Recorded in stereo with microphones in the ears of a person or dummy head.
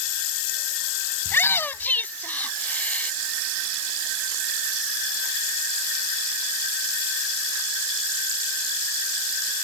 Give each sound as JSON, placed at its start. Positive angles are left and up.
{"t": 1.2, "sound": "a shout", "side_deg": 10}